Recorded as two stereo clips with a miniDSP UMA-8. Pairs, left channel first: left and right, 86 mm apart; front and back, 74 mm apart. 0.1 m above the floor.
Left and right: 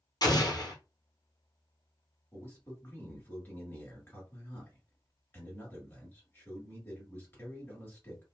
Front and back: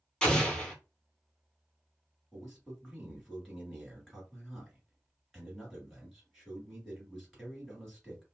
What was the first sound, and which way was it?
An explosion, 80° left.